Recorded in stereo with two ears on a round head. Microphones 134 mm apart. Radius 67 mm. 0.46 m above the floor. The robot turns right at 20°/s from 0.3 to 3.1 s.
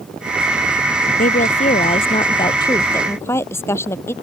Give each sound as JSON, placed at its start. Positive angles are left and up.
{"t": 1.2, "sound": "a woman speaking", "azimuth_deg": 125}